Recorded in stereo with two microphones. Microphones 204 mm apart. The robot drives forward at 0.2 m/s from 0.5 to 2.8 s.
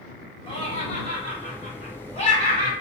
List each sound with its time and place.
0.5 s laughter: 30° left (ahead or behind), 1.6 m